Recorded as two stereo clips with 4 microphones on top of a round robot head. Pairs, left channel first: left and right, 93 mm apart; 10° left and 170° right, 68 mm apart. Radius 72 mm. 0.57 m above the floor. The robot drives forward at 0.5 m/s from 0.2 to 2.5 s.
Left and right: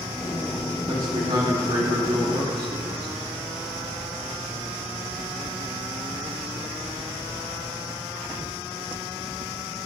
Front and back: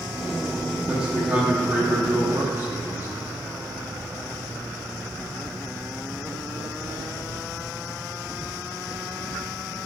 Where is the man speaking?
100° right, 1.9 m; by 3.1 s 125° right, 2 m.